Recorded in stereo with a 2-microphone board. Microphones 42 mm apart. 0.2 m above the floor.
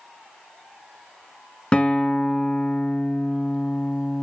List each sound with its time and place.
1.7 s a guitar: 30° left (ahead or behind), 0.8 m